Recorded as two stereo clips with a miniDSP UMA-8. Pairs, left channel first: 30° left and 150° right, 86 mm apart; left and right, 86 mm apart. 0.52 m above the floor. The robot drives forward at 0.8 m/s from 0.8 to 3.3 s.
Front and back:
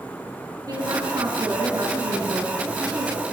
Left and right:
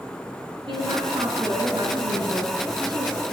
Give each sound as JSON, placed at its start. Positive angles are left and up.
{"t": 0.7, "sound": "a woman speaking", "azimuth_deg": -110, "distance_m": 5.5}